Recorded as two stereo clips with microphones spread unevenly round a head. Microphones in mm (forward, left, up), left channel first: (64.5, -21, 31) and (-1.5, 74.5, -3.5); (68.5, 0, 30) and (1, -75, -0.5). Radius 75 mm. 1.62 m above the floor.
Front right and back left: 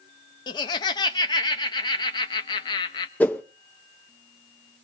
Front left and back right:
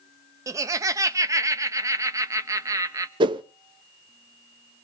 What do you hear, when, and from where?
0.5 s laughter: 65° right, 0.5 m
3.2 s a whoosh: 100° right, 0.5 m